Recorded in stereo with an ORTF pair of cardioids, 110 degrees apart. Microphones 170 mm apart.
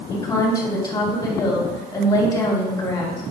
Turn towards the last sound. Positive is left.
turn(degrees=25)